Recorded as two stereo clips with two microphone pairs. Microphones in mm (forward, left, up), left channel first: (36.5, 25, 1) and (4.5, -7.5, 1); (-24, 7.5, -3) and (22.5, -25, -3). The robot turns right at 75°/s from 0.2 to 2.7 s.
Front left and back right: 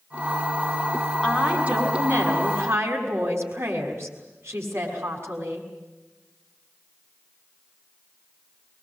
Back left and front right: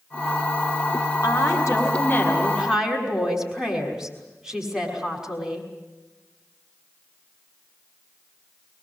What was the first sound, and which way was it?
A woman speaking, 135° left.